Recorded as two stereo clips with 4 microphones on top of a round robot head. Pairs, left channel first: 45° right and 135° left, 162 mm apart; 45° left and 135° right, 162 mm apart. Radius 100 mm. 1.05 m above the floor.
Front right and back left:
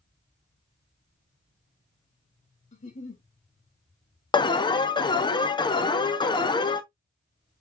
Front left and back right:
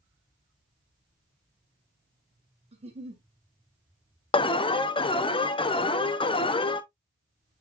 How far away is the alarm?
About 0.7 m.